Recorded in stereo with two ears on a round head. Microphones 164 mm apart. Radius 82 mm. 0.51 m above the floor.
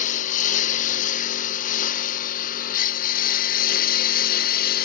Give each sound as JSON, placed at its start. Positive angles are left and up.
{"t": 0.0, "sound": "a lawn mower", "side_deg": 45}